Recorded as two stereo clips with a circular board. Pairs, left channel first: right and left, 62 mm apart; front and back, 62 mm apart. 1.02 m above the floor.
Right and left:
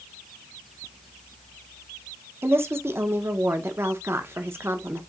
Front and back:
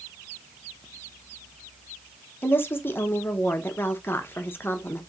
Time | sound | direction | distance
2.4 | a woman speaking | 50° left | 0.7 m